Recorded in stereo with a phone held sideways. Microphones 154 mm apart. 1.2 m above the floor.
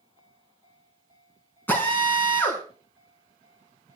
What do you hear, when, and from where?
1.7 s a drill: 10° left (ahead or behind), 6 m